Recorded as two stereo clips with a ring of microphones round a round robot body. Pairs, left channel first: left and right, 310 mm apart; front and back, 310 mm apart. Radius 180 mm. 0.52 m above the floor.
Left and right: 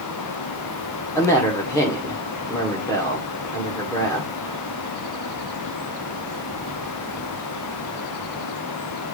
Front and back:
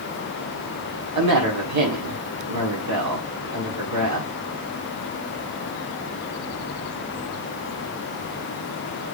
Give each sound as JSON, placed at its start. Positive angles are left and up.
{"t": 1.1, "sound": "a woman speaking", "azimuth_deg": 170, "distance_m": 1.8}